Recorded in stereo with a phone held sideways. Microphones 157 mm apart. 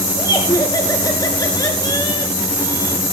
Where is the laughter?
25° left (ahead or behind), 4 m.